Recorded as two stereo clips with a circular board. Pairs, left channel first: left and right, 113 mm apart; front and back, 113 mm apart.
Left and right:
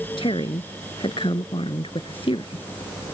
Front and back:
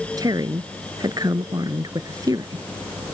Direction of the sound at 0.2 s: 125° left.